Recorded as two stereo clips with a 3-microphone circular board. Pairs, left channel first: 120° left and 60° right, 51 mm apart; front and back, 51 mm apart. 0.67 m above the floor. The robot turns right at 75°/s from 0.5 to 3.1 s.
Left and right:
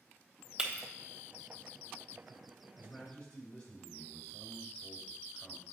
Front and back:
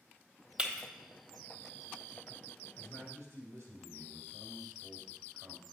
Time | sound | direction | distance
0.6 | breaking glass | 120° right | 1.0 m
2.8 | a man speaking | 160° left | 2.5 m